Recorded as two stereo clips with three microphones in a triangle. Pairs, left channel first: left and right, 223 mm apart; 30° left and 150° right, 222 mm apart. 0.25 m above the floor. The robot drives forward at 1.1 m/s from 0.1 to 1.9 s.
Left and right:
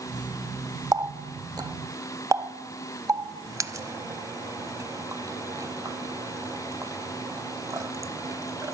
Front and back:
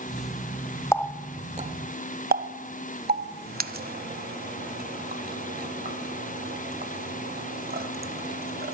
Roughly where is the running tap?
Ahead right.